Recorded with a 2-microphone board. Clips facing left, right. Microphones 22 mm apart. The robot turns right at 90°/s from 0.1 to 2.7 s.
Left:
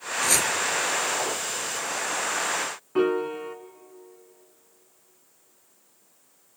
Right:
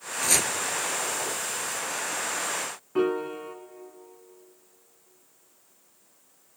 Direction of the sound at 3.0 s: 15° left (ahead or behind).